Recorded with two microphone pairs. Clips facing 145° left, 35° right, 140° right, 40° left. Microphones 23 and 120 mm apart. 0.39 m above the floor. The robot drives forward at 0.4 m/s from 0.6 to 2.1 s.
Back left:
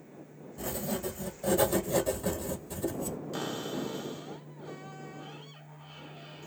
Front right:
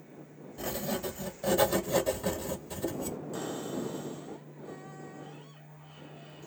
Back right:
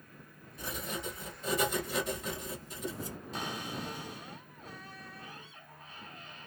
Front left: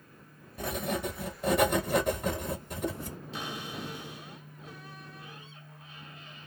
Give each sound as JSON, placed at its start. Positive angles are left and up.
{"t": 0.6, "sound": "writing", "azimuth_deg": 20, "distance_m": 1.8}
{"t": 3.3, "sound": "a cupboard door", "azimuth_deg": 175, "distance_m": 2.0}